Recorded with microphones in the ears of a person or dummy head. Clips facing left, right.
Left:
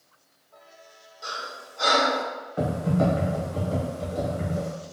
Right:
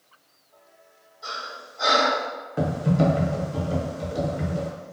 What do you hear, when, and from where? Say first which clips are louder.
1.2 s breathing: even; 70° left (ahead or behind), 1.3 m
2.6 s typing on a keyboard: right 2 dB; 30° right (ahead or behind), 0.6 m